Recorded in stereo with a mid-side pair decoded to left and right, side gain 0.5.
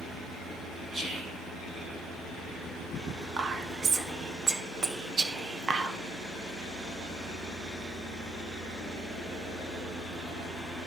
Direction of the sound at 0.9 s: 45° right.